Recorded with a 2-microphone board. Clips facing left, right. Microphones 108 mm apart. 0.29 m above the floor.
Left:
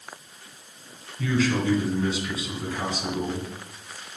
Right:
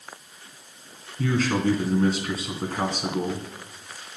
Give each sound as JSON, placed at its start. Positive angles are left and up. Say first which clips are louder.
{"t": 1.2, "sound": "a man speaking", "louder": "even", "side_deg": -45, "distance_m": 2.5}